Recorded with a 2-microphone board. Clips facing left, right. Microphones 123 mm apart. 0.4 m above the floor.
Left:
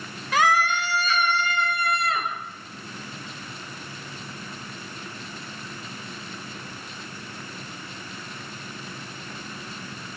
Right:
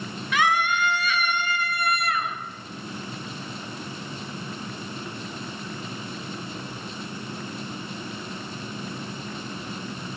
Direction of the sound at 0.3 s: 35° left (ahead or behind).